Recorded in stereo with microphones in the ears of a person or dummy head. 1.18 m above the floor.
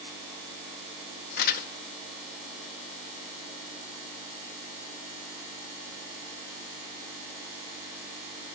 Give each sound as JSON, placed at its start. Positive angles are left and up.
{"t": 1.4, "sound": "crumpling", "side_deg": 50, "distance_m": 1.3}